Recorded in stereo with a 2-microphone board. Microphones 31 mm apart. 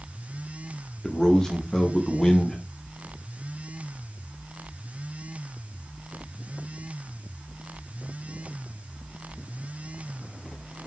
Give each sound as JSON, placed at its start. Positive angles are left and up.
{"t": 1.0, "sound": "a man speaking", "side_deg": 15, "distance_m": 0.6}